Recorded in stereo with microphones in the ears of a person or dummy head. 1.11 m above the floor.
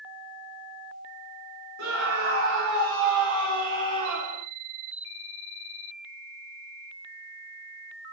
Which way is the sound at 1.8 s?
65° right (ahead or behind).